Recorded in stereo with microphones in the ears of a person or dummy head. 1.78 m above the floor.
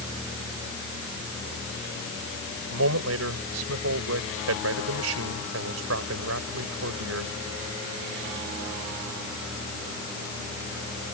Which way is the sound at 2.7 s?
85° right.